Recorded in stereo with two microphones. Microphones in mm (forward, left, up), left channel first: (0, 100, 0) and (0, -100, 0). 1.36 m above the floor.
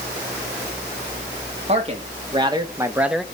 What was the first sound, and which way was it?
A man speaking, 35° right (ahead or behind).